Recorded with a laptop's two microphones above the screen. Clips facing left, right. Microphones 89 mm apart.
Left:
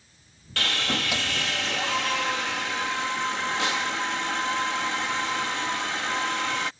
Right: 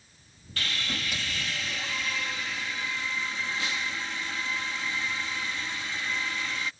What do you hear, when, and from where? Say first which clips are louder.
0.6 s sawing: left 6 dB; 80° left